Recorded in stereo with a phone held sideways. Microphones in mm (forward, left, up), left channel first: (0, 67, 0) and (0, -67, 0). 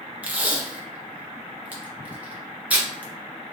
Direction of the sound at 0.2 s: 10° right (ahead or behind).